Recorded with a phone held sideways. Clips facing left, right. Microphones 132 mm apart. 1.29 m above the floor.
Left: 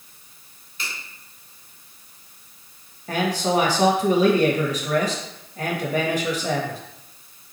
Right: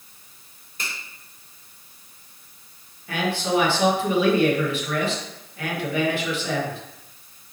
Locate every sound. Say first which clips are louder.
0.8 s a finger snap: even; 45° right (ahead or behind), 4 m
3.1 s a man speaking: left 2 dB; 40° left (ahead or behind), 1.6 m